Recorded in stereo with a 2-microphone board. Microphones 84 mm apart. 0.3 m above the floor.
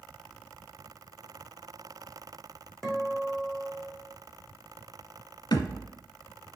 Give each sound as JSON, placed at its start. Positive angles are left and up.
{"t": 2.8, "sound": "a guitar", "side_deg": 0, "distance_m": 3.0}
{"t": 5.5, "sound": "a thud", "side_deg": 65, "distance_m": 1.4}